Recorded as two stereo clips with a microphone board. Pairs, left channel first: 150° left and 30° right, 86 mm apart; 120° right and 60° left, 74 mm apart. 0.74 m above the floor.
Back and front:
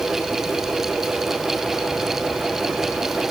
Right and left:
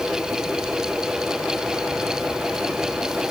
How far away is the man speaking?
No man speaking in this recording.